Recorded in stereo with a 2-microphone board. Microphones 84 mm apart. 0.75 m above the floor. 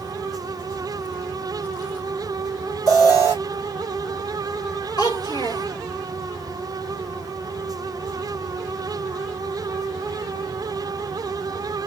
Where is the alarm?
45° left (ahead or behind), 2 m.